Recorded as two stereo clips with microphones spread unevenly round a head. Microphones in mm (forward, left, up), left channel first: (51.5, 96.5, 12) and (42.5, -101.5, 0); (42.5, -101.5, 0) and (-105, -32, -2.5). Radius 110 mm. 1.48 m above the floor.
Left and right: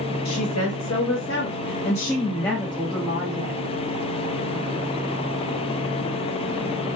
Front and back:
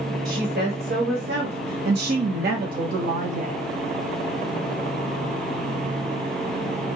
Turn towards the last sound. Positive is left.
turn(degrees=-165)